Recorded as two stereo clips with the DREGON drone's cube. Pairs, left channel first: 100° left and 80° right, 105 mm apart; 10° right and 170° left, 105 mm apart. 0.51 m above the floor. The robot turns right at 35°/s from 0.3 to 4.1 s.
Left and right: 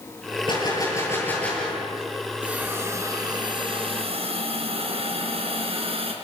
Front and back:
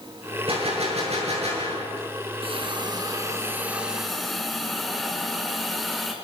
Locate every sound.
0.5 s a gunshot: 145° left, 9.5 m; by 2.1 s 160° right, 9.5 m
2.4 s a hiss: 160° right, 4.5 m; by 6.1 s 100° right, 4.5 m